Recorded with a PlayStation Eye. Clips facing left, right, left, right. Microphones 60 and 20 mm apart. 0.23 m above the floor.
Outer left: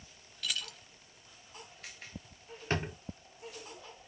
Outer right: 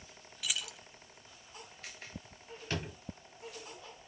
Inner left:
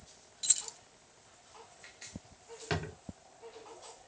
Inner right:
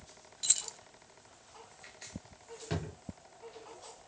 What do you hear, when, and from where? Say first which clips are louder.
0.4 s keys jangling: even, inner right 1 dB; 10° right (ahead or behind), 0.6 m
2.7 s a drawer: outer left 5 dB, inner left 3 dB; 35° left (ahead or behind), 0.7 m